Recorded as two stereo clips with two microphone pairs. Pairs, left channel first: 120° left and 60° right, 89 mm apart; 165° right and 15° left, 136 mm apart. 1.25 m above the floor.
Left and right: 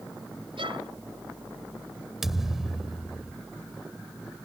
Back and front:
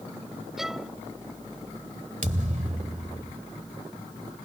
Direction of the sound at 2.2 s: 25° left.